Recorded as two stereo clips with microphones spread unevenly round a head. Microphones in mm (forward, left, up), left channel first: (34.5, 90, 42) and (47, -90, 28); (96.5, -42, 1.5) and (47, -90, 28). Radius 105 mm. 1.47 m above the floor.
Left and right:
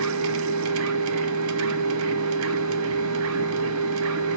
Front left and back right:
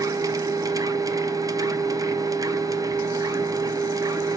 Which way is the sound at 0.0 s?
100° right.